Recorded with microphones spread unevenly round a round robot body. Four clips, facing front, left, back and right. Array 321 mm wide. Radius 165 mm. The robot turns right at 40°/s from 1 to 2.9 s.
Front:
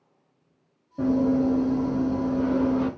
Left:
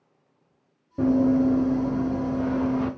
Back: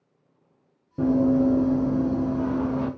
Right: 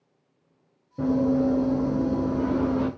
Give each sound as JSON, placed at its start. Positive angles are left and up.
{"t": 1.0, "sound": "running footsteps", "azimuth_deg": 140, "distance_m": 0.9}